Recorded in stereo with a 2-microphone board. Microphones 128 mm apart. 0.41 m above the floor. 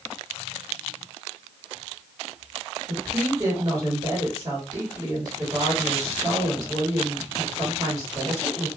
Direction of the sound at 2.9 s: 30° right (ahead or behind).